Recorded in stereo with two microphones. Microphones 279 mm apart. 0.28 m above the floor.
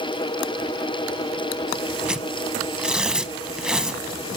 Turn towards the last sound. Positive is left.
turn(degrees=-5)  # may be behind; listen again after turning